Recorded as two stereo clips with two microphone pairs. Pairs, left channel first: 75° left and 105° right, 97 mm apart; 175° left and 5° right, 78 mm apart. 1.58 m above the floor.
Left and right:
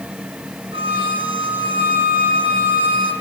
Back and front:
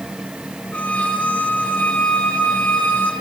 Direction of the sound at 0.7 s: 110° right.